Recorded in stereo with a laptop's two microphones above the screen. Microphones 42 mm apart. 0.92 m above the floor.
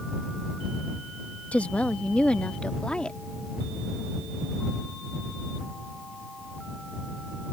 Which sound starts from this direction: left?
A woman speaking, at 1.5 s.